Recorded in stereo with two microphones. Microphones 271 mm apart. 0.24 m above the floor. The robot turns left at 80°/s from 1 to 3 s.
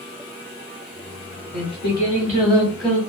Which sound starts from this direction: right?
Singing, at 1.5 s.